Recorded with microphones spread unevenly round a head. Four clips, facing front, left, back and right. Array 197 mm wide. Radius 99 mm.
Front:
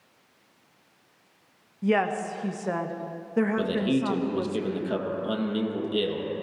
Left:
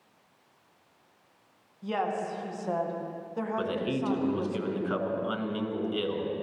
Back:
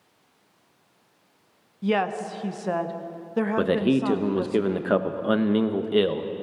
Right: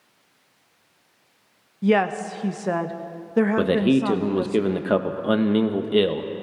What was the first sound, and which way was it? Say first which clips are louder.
A woman speaking: right 10 dB, even; 85° right.